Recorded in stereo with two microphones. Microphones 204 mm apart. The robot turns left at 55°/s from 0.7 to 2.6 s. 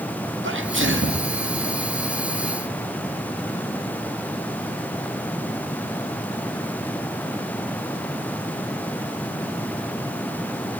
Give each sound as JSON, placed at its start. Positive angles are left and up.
{"t": 0.4, "sound": "a sneeze", "azimuth_deg": -85, "distance_m": 1.8}